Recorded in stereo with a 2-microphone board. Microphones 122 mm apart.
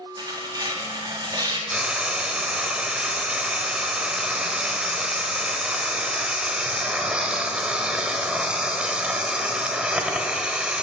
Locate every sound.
0.2 s tearing paper: 35° right (ahead or behind), 1.2 m
1.7 s frying: 5° right (ahead or behind), 0.6 m